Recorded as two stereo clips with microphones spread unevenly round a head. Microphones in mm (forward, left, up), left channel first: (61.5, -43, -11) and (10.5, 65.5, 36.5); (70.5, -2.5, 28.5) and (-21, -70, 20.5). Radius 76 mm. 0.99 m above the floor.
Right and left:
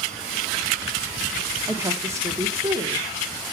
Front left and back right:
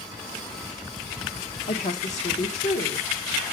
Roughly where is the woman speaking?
Ahead left.